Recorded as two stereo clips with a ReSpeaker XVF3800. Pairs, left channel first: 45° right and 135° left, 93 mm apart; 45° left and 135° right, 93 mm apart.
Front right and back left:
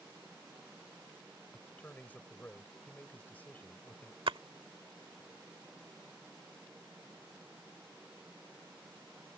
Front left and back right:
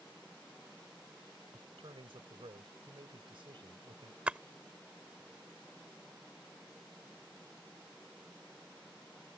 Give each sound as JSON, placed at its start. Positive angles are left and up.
{"t": 1.5, "sound": "a man speaking", "azimuth_deg": -115}
{"t": 4.3, "sound": "a splash", "azimuth_deg": 150}